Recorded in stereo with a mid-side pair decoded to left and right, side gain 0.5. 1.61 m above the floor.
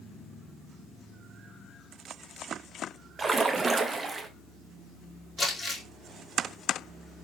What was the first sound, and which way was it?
A splash, 30° right.